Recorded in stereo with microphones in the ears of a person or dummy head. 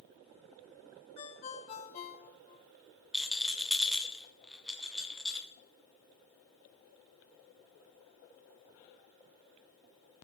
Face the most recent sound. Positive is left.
turn(degrees=0)  # may be behind; listen again after turning